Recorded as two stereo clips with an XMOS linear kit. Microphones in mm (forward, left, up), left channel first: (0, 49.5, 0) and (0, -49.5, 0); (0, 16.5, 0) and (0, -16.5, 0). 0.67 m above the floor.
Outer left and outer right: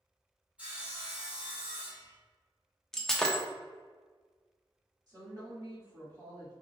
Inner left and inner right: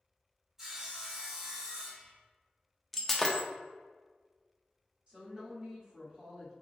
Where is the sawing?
10° right (ahead or behind), 1.0 m.